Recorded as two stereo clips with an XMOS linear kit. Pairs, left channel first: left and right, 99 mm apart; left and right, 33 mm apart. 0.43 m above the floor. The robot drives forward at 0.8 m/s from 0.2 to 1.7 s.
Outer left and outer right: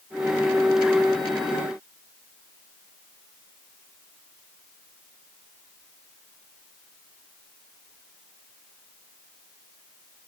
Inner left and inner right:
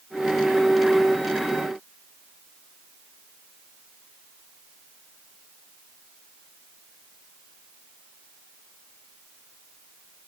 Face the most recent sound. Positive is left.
No sound to turn to.